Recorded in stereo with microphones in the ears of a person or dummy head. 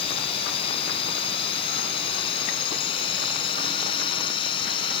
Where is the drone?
40° left (ahead or behind); by 5.0 s 35° left (ahead or behind).